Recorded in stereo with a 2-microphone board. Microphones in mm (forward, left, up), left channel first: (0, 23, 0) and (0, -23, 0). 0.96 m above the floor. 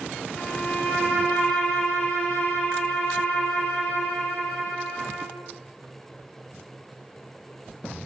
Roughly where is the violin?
Left.